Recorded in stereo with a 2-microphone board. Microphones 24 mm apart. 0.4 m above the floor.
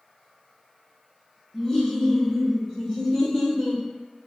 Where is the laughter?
25° left (ahead or behind), 1.1 m; by 3.8 s centre (ahead or behind), 1.5 m.